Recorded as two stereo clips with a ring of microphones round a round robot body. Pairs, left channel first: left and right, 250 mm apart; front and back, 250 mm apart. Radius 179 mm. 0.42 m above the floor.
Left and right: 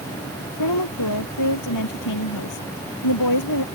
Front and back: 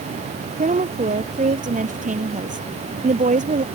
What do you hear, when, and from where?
0.6 s a woman speaking: 120° left